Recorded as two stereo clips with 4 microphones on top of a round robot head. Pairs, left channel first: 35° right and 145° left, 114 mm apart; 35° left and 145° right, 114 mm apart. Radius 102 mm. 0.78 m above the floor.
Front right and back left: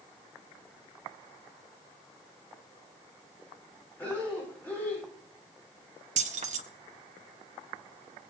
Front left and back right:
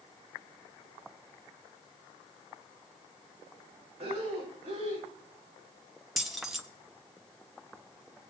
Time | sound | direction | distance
4.0 | breathing | 110° right | 4.5 m
6.2 | keys jangling | 125° left | 1.1 m